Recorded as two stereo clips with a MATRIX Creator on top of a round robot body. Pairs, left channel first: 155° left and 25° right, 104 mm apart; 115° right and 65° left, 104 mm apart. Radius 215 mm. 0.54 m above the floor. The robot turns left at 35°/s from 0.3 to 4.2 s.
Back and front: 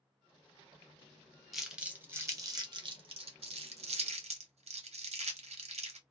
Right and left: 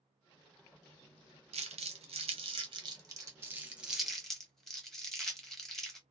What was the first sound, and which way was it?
Crumpling, 70° left.